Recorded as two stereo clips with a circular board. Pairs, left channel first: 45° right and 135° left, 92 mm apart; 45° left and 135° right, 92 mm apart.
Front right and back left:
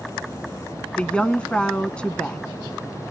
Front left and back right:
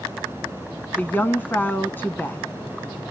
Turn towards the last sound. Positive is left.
turn(degrees=20)